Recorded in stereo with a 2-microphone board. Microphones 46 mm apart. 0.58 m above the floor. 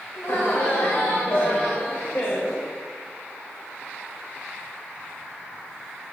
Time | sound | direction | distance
0.1 | laughter | 70° left (ahead or behind) | 3 m